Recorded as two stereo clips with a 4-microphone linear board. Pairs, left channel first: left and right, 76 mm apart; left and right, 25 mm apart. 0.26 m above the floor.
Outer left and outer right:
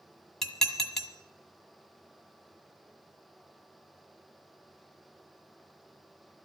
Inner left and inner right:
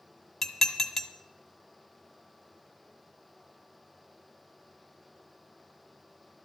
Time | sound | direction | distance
0.4 | dishes clattering | 5° left (ahead or behind) | 1.0 m